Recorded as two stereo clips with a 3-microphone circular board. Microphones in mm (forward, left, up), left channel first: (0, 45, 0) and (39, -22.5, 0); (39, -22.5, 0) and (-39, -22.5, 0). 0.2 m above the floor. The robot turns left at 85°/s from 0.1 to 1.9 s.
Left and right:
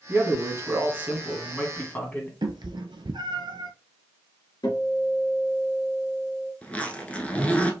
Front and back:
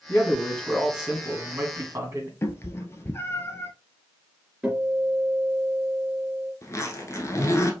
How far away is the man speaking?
About 1.6 m.